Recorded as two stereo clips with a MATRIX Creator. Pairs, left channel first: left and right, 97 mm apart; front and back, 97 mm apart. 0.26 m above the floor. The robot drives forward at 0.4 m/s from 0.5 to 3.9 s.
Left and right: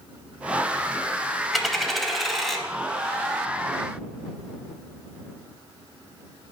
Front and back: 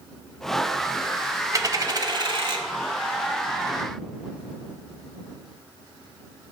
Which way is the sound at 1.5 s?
Straight behind.